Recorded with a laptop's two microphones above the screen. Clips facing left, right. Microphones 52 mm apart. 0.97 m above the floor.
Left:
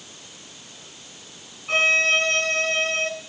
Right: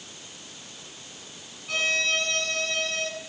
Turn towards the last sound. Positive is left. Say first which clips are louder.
# left 7 dB
turn(degrees=40)  # may be behind; listen again after turning